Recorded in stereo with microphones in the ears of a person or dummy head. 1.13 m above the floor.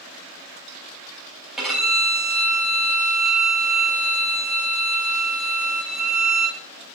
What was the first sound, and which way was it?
A violin, 5° right (ahead or behind).